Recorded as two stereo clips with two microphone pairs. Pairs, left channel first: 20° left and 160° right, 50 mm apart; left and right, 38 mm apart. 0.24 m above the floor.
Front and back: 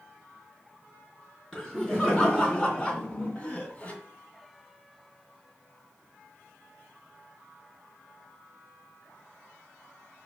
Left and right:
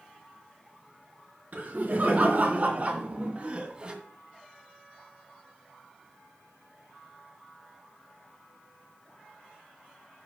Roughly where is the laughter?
Ahead right.